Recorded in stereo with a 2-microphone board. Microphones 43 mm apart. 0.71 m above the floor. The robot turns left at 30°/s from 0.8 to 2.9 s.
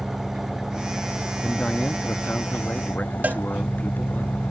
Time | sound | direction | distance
0.0 | an engine running | 175° right | ?
1.4 | a man speaking | 130° left | ?
3.2 | a cowbell | 45° right (ahead or behind) | ?